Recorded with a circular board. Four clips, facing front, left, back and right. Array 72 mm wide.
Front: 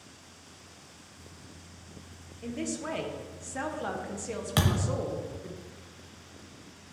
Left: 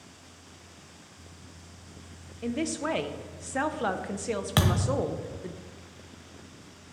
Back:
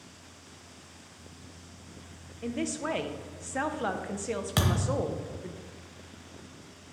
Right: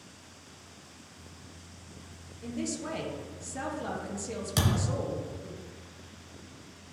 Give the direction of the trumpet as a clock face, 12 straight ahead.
I don't hear a trumpet.